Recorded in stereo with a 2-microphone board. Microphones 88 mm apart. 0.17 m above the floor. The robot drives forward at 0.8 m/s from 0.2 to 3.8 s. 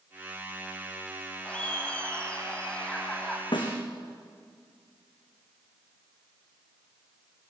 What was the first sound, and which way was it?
Laughter, 15° left (ahead or behind).